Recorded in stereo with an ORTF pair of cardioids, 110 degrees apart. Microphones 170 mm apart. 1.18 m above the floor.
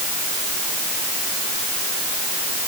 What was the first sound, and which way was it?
Only background noise.